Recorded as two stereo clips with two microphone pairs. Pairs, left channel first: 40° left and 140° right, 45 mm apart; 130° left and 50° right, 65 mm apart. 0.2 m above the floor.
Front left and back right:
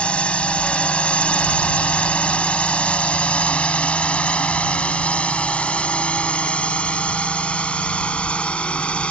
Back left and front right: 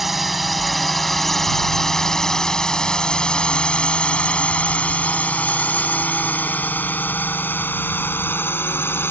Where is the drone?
35° left; by 9.1 s 95° left.